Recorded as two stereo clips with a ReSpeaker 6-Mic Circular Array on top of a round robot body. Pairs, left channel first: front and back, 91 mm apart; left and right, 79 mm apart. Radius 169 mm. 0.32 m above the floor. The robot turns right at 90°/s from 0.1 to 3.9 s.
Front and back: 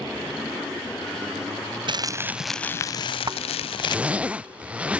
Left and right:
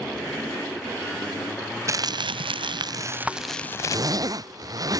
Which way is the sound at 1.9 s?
145° right.